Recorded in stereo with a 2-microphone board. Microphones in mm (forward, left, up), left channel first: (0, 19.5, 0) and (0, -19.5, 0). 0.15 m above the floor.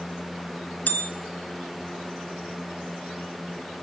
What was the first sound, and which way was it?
A bell, 50° left (ahead or behind).